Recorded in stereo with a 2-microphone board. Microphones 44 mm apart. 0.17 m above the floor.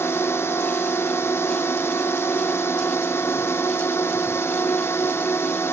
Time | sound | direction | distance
0.0 | a drone | 70° left (ahead or behind) | ?